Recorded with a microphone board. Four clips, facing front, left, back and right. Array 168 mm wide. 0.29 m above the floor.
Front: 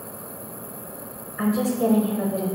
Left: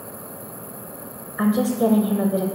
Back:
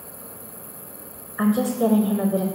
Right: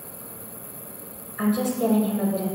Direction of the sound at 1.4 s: 125° left.